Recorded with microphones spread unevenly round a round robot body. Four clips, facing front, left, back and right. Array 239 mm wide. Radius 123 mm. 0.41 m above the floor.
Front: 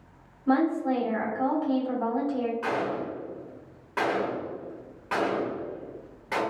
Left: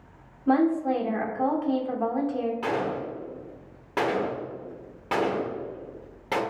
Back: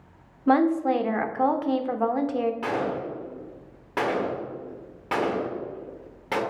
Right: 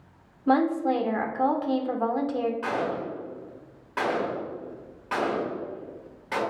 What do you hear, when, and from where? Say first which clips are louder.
0.5 s a woman speaking: even, back 3 dB; 150° right, 0.8 m
2.6 s a gunshot: even, back 1 dB; 125° left, 1.3 m